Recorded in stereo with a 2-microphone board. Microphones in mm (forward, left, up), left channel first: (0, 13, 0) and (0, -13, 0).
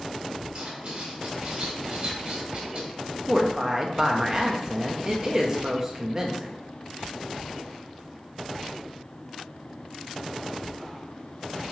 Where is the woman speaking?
25° right (ahead or behind), 0.9 m.